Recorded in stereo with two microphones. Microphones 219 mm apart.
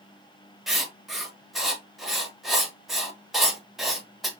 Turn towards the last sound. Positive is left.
turn(degrees=0)  # may be behind; listen again after turning